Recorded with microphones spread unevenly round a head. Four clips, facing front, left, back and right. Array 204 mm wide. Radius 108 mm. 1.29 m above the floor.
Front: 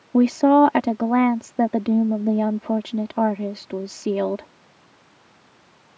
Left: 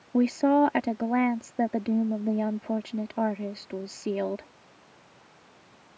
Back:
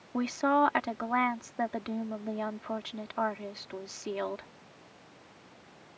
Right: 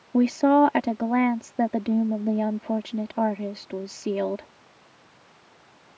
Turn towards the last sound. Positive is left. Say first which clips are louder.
# right 3 dB, front 12 dB
turn(degrees=-15)